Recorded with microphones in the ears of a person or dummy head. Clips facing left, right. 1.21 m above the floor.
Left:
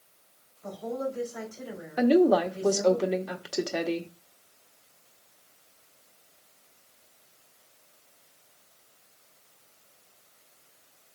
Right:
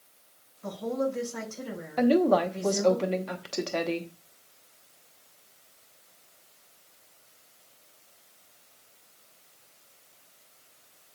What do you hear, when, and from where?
0.6 s a woman speaking: 85° right, 6 m
2.0 s a woman speaking: 10° left (ahead or behind), 0.9 m